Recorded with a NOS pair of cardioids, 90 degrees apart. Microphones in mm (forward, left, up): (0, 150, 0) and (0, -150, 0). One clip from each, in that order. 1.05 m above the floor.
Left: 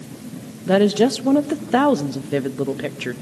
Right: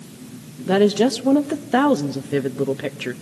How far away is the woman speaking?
About 0.9 m.